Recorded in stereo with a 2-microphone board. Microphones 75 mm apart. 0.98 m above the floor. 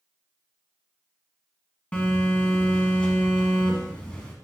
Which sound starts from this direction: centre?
A phone buzzing, at 1.9 s.